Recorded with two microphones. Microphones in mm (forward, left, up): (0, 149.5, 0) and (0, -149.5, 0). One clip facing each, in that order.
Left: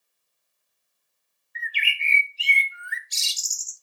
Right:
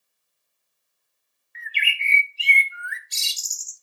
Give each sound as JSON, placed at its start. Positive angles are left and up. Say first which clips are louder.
{"t": 1.6, "sound": "a bird", "louder": "right 1 dB", "side_deg": -65, "distance_m": 0.8}